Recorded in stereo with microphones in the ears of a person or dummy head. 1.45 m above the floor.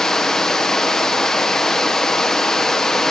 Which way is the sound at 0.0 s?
5° left (ahead or behind).